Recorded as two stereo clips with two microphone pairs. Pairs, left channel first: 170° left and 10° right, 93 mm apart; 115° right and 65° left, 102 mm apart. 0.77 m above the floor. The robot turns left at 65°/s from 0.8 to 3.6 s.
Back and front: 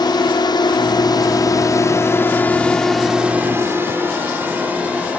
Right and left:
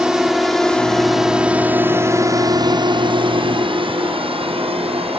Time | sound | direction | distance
0.0 | a drone | 145° left | ?